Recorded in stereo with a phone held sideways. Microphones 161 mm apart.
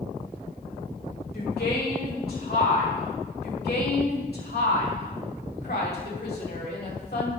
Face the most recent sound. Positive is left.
turn(degrees=90)